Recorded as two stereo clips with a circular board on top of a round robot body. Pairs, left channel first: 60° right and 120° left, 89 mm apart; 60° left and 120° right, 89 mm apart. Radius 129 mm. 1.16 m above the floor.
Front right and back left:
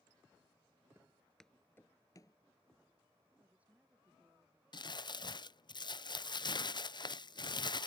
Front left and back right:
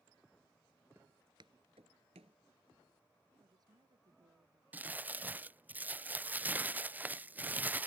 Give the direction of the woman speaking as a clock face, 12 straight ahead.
6 o'clock.